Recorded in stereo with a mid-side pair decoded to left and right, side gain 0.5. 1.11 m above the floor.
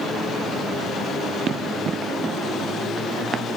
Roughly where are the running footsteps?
Ahead right.